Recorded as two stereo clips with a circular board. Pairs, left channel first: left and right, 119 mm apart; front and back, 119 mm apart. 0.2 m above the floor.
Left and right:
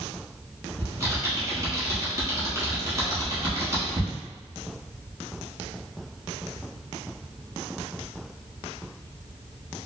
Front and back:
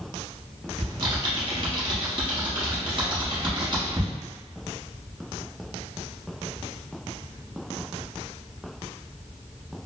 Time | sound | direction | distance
0.8 | typing on a keyboard | 150° right | 1.1 m